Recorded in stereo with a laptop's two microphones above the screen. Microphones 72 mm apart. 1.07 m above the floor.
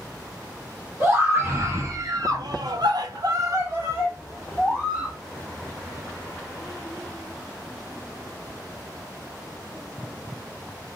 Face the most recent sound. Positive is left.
turn(degrees=-15)  # may be behind; listen again after turning